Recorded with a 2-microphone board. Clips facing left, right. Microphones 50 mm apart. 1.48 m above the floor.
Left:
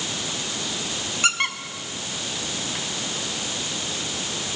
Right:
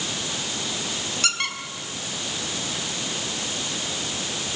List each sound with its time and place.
1.2 s a squeak: 25° left (ahead or behind), 2 m